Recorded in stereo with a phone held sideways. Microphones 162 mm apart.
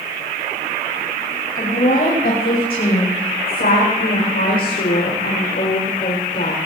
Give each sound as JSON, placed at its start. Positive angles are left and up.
{"t": 1.6, "sound": "a woman speaking", "side_deg": 60, "distance_m": 6.0}